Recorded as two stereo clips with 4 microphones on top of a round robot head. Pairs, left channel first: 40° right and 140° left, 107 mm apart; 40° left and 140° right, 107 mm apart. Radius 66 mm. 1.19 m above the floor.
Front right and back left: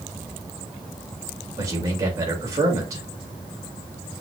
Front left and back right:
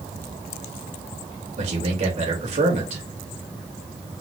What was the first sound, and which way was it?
A man speaking, 160° right.